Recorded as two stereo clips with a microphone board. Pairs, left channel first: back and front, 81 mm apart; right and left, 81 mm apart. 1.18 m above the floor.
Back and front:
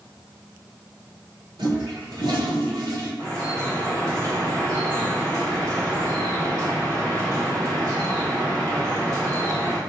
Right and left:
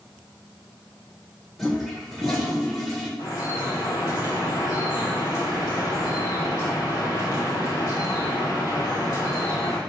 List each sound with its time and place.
1.6 s a toilet flushing: 5° right, 1.7 m
3.2 s dripping: 40° right, 3.5 m